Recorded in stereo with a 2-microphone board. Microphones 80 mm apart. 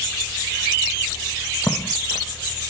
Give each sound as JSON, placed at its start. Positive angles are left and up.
{"t": 1.7, "sound": "footsteps", "side_deg": 25}